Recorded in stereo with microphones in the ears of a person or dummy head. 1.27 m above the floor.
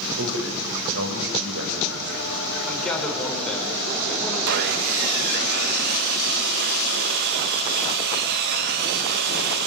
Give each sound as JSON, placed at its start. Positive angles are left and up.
{"t": 0.2, "sound": "a man speaking", "side_deg": -85, "distance_m": 7.0}
{"t": 2.7, "sound": "a man speaking", "side_deg": 5, "distance_m": 6.0}
{"t": 4.5, "sound": "sawing", "side_deg": -60, "distance_m": 1.2}